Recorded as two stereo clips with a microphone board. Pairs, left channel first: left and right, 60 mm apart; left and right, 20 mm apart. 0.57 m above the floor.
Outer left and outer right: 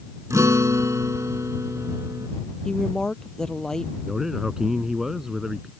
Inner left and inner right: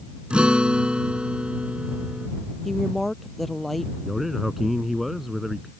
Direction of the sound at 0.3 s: 55° right (ahead or behind).